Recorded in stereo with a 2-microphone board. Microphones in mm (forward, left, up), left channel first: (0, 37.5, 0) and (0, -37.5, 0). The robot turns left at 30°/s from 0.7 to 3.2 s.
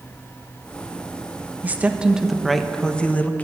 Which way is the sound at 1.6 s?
155° right.